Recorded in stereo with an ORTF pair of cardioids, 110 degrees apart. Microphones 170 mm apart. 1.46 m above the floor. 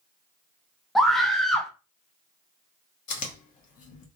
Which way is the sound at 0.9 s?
Straight ahead.